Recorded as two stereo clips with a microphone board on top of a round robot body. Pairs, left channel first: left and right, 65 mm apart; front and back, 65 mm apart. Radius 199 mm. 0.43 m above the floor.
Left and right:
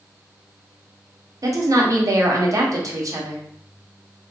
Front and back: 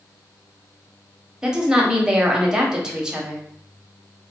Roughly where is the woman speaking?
Right.